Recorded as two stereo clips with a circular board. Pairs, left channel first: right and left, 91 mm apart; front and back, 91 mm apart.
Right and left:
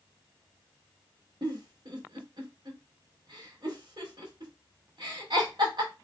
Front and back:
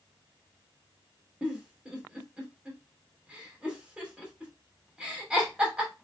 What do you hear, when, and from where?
1.4 s a giggle: 105° left, 1.7 m